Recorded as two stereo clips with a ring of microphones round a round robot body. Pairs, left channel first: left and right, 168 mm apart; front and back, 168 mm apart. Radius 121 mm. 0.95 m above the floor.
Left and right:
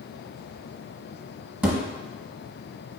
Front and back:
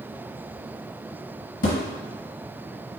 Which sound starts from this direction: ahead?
A thud, at 1.6 s.